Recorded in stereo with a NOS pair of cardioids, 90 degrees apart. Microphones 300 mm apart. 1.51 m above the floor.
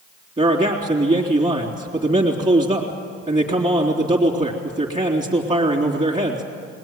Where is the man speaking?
25° right, 3.5 m.